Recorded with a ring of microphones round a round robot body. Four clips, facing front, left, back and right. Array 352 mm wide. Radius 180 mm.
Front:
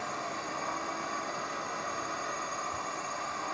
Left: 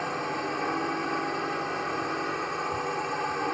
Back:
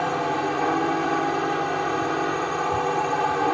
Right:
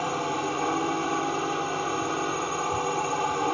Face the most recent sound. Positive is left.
turn(degrees=-170)